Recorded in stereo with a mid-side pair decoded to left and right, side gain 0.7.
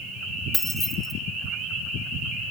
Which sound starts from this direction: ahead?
Keys jangling, at 0.5 s.